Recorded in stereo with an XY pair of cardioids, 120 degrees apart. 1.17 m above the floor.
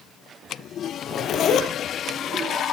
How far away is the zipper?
About 4.5 m.